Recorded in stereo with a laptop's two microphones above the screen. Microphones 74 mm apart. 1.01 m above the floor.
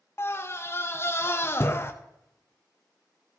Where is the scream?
35° left (ahead or behind), 0.7 m.